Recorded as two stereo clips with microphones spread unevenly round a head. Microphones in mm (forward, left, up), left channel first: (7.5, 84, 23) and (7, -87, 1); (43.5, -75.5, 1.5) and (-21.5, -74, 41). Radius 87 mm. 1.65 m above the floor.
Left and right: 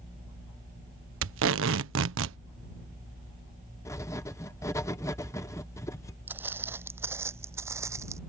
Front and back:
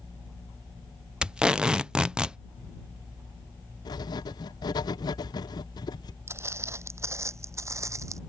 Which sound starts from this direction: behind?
Footsteps, at 6.3 s.